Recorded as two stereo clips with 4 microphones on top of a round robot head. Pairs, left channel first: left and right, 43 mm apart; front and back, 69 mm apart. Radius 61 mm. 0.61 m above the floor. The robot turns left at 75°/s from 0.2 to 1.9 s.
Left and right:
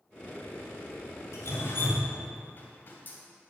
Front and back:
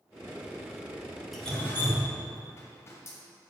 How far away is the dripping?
About 2 m.